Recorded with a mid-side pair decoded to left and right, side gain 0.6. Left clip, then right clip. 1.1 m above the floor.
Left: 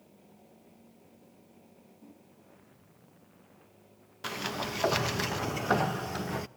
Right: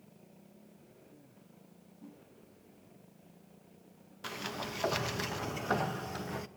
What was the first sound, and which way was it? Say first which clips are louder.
A whoosh: right 3 dB; 20° right.